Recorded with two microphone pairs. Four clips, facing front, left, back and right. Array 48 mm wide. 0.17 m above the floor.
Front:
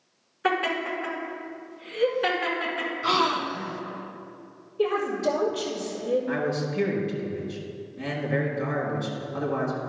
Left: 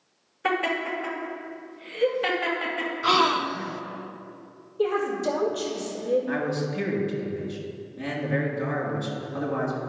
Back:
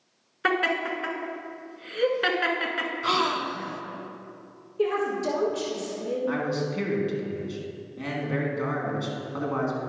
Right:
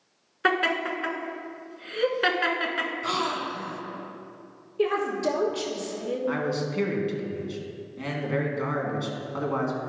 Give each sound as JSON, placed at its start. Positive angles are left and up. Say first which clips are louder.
{"t": 0.4, "sound": "laughter", "louder": "right 2 dB, back 1 dB", "azimuth_deg": -120, "distance_m": 1.5}
{"t": 3.0, "sound": "a gasp", "louder": "left 6 dB, front 2 dB", "azimuth_deg": 90, "distance_m": 0.5}
{"t": 4.8, "sound": "a woman speaking", "louder": "even, front 1 dB", "azimuth_deg": -95, "distance_m": 2.5}
{"t": 6.3, "sound": "a man speaking", "louder": "even, even", "azimuth_deg": -115, "distance_m": 1.8}